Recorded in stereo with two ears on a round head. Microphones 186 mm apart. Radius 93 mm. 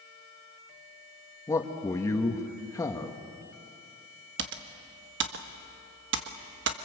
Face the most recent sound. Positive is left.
turn(degrees=-60)  # may be behind; listen again after turning